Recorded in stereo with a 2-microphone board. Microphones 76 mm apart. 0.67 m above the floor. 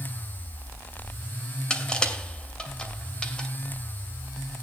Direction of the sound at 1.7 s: 15° left (ahead or behind).